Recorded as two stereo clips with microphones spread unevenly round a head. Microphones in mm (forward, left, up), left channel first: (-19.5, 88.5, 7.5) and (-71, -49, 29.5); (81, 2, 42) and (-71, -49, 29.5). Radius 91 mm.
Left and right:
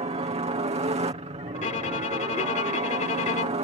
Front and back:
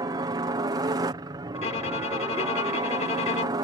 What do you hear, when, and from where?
0.0 s a helicopter: 120° right
1.6 s a violin: 35° left